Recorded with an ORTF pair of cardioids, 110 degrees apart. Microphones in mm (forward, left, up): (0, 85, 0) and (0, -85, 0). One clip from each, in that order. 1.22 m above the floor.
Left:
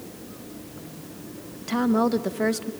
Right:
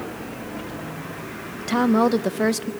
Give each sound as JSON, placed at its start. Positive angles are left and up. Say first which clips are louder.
{"t": 1.6, "sound": "a woman speaking", "louder": "right 4 dB", "azimuth_deg": -25, "distance_m": 0.7}